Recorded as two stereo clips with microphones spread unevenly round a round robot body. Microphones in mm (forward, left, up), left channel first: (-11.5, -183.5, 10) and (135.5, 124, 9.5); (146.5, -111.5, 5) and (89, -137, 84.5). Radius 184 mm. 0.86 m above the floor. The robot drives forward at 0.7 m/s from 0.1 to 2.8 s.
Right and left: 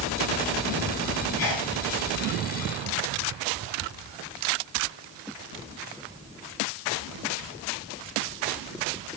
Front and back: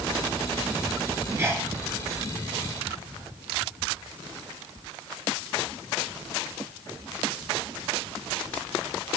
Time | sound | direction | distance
1.4 | a sneeze | 95° right | 5.5 m